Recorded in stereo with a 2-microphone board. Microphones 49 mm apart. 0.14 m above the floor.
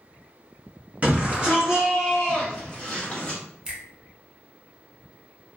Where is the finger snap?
20° right (ahead or behind), 1.0 m.